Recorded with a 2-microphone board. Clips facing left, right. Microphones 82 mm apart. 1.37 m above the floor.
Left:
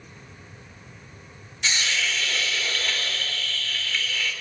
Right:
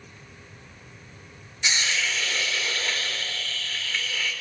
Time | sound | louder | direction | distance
1.6 | a hiss | even | 15° right (ahead or behind) | 3.5 m